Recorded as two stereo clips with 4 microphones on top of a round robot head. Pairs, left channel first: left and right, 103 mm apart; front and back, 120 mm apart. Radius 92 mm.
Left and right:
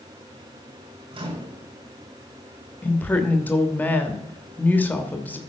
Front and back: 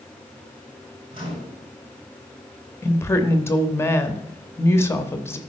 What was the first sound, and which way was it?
A microwave, 125° right.